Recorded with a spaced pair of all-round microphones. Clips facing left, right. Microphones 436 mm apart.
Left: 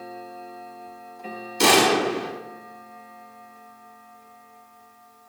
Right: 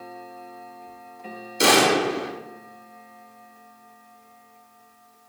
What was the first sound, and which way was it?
A gunshot, 10° left (ahead or behind).